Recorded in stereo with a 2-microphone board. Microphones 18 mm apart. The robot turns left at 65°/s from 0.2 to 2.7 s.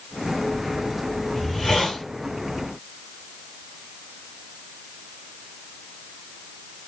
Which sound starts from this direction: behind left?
A hiss, at 1.4 s.